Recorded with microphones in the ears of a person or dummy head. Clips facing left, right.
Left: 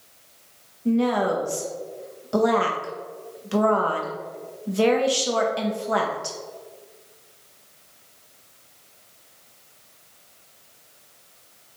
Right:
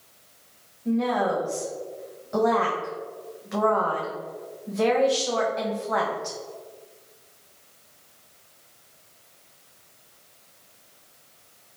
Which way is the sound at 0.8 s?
40° left (ahead or behind).